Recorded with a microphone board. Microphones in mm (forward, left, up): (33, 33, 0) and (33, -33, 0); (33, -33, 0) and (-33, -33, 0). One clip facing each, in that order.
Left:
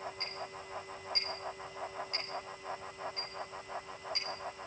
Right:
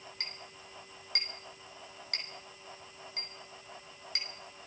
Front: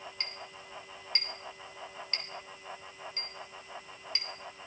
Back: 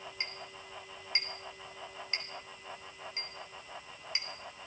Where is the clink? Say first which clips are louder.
Left 5 dB, even; 110° right, 6 m.